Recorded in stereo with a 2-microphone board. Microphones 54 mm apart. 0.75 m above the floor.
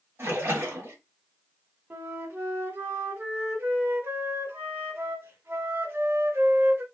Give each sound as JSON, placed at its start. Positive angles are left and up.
{"t": 0.2, "sound": "a splash", "side_deg": -55, "distance_m": 1.5}
{"t": 1.9, "sound": "a flute", "side_deg": -45, "distance_m": 1.0}